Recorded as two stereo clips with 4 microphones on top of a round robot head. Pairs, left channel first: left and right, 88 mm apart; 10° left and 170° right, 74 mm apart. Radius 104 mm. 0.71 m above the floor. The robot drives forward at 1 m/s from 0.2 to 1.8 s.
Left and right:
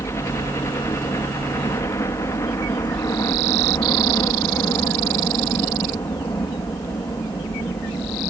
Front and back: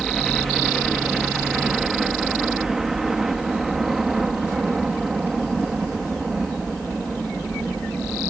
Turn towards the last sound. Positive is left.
turn(degrees=110)